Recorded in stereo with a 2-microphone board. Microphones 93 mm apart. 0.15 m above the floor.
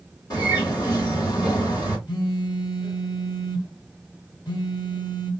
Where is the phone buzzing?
50° left (ahead or behind), 2.5 m.